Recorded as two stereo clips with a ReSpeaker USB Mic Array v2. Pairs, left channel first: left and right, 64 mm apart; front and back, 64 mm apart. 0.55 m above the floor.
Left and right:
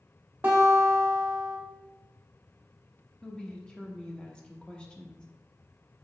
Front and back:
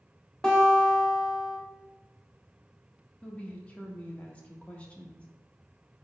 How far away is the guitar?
About 1.0 m.